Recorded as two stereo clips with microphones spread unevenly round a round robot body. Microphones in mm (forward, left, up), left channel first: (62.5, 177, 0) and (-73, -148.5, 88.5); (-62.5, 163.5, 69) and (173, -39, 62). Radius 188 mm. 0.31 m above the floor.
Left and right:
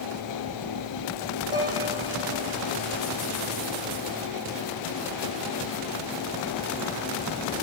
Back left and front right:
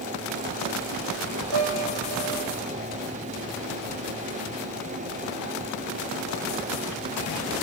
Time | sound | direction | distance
1.5 | a piano | 35° right | 7 m